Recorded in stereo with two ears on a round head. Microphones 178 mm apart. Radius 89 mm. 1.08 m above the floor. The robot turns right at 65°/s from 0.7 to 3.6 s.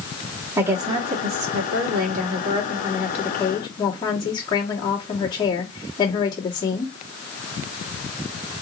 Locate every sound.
0.6 s a woman speaking: 165° right, 1.8 m; by 6.9 s 20° left, 1.8 m